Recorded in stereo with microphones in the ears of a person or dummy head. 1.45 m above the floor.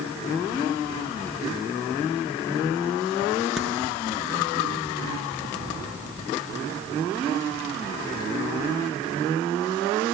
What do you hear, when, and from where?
3.6 s a crack: centre (ahead or behind), 6.5 m